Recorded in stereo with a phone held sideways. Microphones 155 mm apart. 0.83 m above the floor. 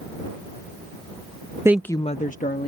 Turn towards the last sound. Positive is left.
turn(degrees=60)  # may be behind; listen again after turning